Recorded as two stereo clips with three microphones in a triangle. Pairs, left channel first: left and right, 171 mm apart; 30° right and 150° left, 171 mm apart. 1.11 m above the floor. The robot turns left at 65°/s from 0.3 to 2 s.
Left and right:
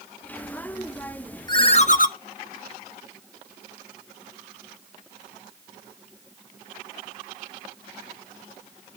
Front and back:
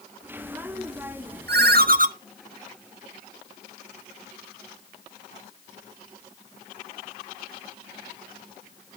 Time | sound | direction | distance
1.5 | a ringtone | 155° left | 0.6 m